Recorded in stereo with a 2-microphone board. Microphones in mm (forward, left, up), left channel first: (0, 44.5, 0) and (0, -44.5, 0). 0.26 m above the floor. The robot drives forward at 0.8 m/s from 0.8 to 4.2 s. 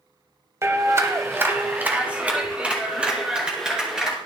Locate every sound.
0.6 s a clap: 30° right (ahead or behind), 0.8 m; by 4.2 s 10° right (ahead or behind), 3 m